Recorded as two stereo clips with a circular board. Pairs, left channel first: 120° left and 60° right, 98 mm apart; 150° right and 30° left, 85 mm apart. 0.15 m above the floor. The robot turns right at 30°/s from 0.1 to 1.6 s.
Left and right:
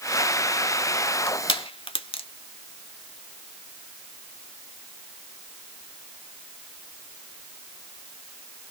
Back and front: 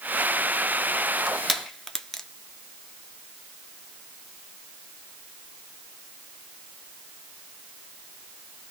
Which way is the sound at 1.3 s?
115° left.